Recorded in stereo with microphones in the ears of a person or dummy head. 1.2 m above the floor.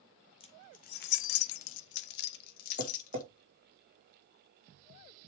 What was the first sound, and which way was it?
Keys jangling, 25° left (ahead or behind).